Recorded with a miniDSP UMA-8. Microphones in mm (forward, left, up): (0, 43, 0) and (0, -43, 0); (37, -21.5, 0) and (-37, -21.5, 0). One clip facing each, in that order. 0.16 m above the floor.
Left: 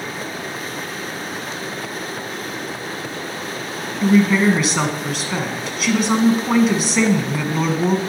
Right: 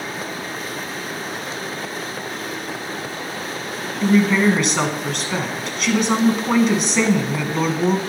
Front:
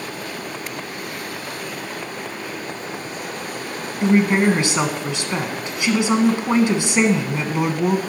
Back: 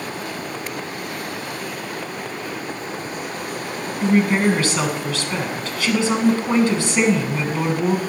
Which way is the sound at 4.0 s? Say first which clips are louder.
Left 1 dB, front 1 dB; 5° left.